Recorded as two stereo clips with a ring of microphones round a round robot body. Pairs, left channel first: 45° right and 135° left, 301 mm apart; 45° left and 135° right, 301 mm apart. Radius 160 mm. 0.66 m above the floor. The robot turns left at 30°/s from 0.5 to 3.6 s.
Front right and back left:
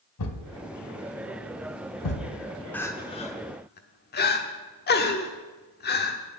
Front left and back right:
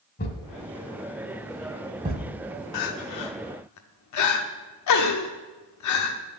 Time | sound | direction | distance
0.2 | a thud | 15° right | 1.7 m
2.7 | crying | 40° left | 1.0 m